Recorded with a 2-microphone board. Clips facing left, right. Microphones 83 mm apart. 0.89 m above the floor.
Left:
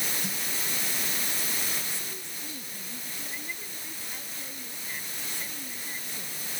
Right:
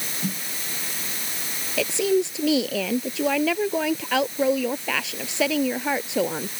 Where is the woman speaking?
90° right.